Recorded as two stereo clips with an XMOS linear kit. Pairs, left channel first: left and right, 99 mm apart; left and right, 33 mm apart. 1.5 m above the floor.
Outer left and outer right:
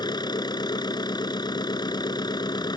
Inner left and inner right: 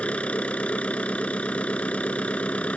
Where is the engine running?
40° left (ahead or behind).